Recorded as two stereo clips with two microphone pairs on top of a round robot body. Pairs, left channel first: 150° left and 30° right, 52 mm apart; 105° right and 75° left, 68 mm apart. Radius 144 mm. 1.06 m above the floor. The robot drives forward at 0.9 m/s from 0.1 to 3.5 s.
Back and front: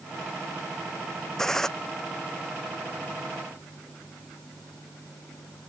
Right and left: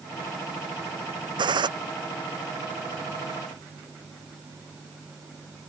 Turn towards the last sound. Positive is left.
turn(degrees=75)